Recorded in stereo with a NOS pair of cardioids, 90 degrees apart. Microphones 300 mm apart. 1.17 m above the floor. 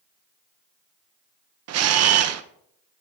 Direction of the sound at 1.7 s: 55° right.